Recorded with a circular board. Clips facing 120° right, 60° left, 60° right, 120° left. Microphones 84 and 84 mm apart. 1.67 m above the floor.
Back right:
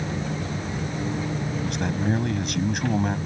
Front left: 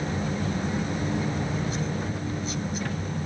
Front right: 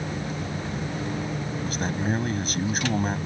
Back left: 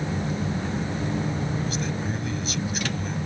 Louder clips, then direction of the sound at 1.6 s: Back right 4 dB, front right 1 dB; 100° right.